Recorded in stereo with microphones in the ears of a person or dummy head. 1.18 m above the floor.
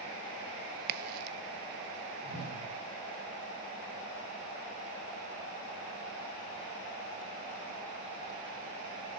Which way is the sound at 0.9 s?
55° right (ahead or behind).